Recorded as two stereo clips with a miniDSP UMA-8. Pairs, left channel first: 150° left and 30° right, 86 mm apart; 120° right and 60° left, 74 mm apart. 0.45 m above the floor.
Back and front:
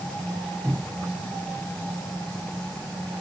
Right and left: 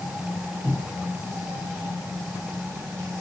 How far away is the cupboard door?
About 0.7 m.